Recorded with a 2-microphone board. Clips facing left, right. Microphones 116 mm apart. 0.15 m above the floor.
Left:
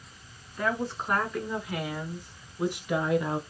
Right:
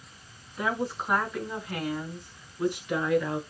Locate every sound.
0.6 s a woman speaking: 10° right (ahead or behind), 1.3 m; by 3.4 s 20° left (ahead or behind), 1.2 m